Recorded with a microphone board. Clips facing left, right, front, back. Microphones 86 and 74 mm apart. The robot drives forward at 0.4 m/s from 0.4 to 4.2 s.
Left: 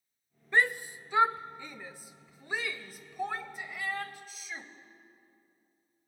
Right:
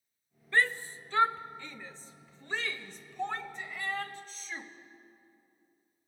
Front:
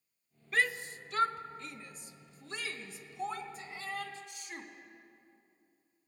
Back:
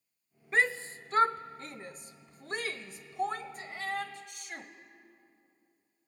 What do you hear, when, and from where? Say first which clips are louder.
0.5 s a shout: left 1 dB, back 3 dB; 150° left, 0.8 m; by 4.7 s 170° left, 2 m